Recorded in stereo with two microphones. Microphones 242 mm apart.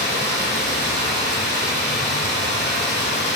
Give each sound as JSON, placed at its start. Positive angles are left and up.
{"t": 0.0, "sound": "running water", "side_deg": -75, "distance_m": 6.5}